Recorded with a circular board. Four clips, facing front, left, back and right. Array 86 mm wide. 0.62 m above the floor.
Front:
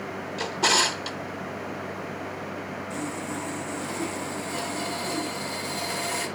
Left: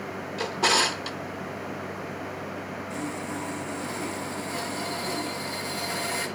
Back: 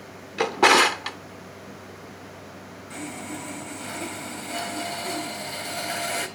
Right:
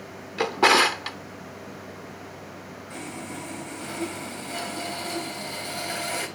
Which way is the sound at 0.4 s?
145° right.